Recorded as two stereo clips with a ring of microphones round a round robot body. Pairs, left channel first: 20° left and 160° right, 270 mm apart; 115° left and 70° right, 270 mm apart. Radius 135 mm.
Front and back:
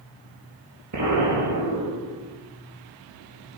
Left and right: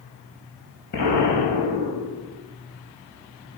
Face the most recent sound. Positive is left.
turn(degrees=175)